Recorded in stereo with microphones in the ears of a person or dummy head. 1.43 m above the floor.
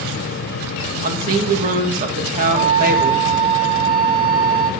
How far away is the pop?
No pop in this recording.